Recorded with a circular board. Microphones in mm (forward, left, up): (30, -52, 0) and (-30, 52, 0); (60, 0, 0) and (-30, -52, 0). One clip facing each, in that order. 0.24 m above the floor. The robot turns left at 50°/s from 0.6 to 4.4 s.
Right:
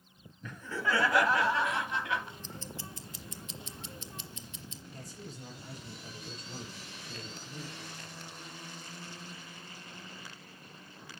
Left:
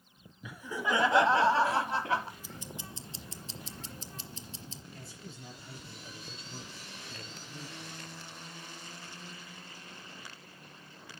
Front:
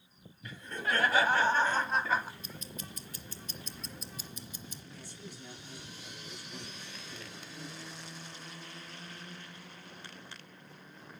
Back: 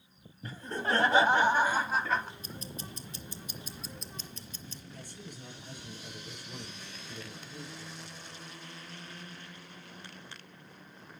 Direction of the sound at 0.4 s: 170° right.